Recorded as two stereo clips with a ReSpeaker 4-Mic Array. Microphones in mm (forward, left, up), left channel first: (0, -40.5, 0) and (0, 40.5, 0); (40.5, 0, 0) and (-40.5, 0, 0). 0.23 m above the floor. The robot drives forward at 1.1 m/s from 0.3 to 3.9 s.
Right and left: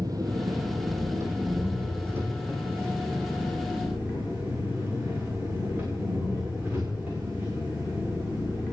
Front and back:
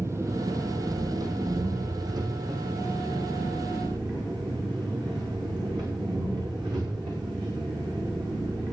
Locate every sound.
0.0 s an engine running: 125° left, 2.5 m; by 8.7 s 160° left, 5.5 m